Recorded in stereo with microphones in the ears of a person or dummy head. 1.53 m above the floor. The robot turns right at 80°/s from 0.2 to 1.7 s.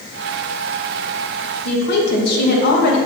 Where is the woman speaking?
60° left (ahead or behind), 1.9 m; by 3.0 s 65° left (ahead or behind), 1.9 m.